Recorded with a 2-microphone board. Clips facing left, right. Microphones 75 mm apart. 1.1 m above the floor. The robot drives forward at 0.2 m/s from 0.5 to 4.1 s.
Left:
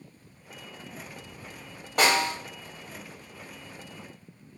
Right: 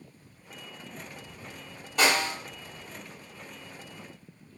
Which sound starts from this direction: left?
A snare drum, at 2.0 s.